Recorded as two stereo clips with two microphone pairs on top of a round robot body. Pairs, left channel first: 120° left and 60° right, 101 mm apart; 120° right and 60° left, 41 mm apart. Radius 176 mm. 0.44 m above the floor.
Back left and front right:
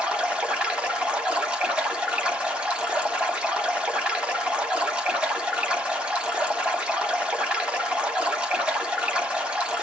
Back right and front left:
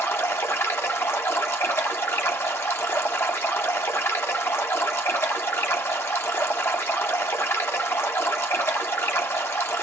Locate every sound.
0.0 s running water: 140° right, 1.2 m